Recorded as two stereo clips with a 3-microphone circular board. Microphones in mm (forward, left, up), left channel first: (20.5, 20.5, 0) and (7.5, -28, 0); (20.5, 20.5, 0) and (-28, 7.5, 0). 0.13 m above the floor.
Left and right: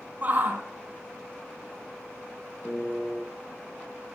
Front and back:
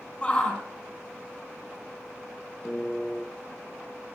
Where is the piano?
30° left, 2.5 m.